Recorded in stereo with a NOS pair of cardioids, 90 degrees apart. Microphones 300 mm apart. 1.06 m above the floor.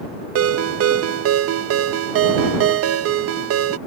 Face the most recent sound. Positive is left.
turn(degrees=-50)